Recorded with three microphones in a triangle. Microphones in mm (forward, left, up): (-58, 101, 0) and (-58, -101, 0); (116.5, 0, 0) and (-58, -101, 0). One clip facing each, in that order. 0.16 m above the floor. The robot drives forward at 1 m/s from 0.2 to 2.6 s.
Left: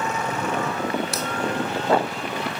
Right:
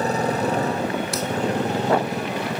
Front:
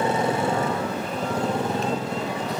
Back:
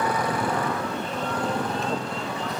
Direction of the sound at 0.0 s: 35° right.